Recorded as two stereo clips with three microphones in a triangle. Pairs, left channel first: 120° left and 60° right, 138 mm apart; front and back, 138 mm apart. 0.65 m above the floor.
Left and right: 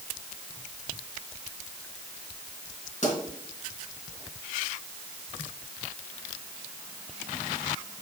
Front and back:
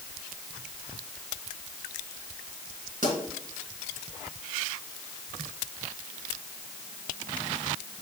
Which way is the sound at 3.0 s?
155° left.